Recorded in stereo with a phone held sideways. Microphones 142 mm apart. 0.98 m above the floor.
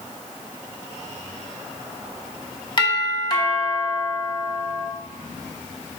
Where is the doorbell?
35° left (ahead or behind), 1.3 m.